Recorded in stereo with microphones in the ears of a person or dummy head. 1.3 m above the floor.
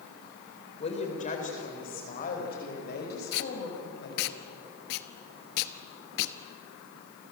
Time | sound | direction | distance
0.8 | a woman speaking | 35° left (ahead or behind) | 4.5 m
3.3 | tape being pulled | 60° left (ahead or behind) | 1.0 m